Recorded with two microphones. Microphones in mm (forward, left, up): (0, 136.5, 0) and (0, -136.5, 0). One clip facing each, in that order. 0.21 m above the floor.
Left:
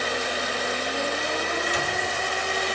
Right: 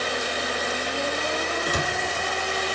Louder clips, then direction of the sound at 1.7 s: Right 2 dB; 50° right (ahead or behind).